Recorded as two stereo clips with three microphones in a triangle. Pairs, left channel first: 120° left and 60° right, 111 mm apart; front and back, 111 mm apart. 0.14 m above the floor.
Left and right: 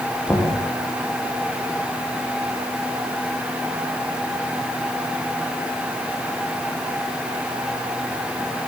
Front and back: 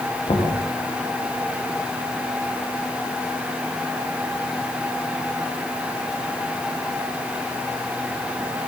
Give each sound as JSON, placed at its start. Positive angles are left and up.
{"t": 0.3, "sound": "knocking", "azimuth_deg": 40, "distance_m": 10.0}